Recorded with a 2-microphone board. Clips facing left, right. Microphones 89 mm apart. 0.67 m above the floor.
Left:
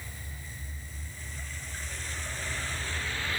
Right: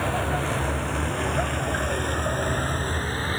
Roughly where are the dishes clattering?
I don't hear dishes clattering.